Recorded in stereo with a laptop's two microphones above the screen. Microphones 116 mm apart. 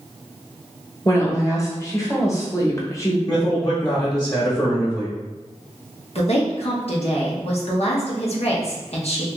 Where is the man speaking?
30° left (ahead or behind), 1.1 m.